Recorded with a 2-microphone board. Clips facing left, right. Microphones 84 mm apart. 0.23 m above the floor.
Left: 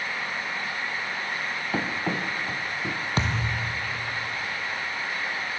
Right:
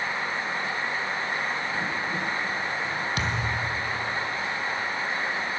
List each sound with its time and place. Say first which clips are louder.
1.7 s running footsteps: left 1 dB; 75° left (ahead or behind), 2.5 m; by 3.0 s 65° left (ahead or behind), 2.0 m
3.2 s a thud: even; 35° left (ahead or behind), 2.0 m